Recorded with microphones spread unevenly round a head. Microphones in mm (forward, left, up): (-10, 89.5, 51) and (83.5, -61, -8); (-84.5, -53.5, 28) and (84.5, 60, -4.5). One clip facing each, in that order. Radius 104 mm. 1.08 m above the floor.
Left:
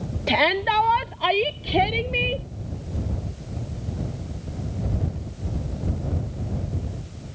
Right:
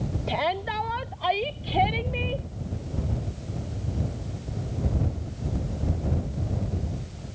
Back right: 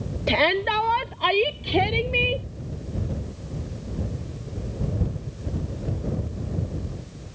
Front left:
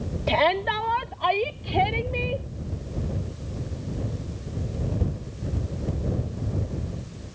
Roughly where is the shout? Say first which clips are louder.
Left 6 dB, back right 1 dB; behind left.